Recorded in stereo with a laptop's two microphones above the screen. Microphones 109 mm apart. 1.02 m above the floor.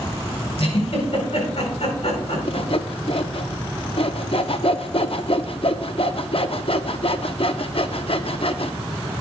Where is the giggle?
70° left (ahead or behind), 4.5 m.